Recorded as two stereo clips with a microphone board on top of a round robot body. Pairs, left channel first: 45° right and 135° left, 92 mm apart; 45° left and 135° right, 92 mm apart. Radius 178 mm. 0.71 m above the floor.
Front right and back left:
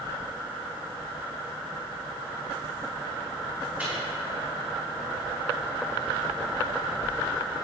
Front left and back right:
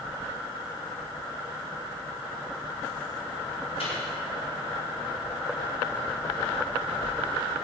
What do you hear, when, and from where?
3.8 s a microwave: 60° left, 5 m